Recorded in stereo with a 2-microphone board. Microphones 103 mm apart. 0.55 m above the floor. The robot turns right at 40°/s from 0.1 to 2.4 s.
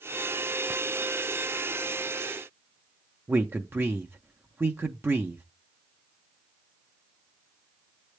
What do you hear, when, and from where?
3.3 s a man speaking: 20° right (ahead or behind), 0.6 m